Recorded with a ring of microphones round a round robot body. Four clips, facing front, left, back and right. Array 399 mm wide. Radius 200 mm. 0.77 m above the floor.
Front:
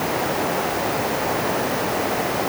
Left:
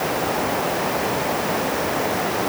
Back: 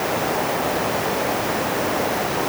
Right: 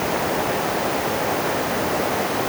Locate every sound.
Only background noise.